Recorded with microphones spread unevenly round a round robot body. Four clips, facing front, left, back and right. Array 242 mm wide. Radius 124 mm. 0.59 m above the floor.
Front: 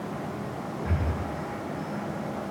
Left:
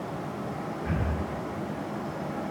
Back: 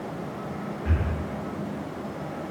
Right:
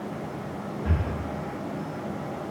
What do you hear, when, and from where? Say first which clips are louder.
0.8 s breathing: right 1 dB, back 1 dB; 100° right, 4.5 m